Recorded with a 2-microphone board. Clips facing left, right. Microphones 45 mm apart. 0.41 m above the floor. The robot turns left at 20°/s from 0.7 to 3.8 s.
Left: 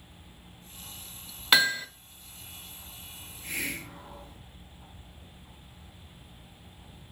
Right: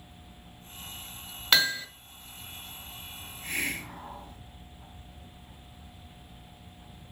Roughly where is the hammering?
Centre.